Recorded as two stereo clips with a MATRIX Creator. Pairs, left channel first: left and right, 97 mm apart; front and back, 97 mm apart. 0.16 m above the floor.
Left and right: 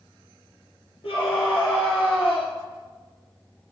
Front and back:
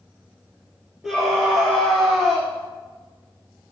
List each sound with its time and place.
1.0 s a scream: 95° left, 4 m